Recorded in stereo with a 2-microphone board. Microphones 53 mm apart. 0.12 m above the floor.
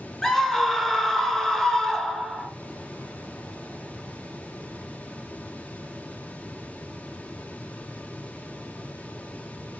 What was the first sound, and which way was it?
A scream, 10° left (ahead or behind).